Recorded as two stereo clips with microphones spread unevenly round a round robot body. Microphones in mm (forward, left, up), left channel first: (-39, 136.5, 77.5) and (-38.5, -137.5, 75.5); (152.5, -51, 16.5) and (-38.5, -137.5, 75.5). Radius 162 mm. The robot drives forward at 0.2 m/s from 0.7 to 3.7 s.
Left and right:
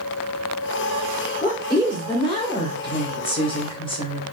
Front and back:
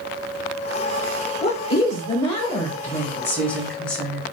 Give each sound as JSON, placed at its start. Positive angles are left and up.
{"t": 1.4, "sound": "a woman speaking", "azimuth_deg": 20, "distance_m": 1.2}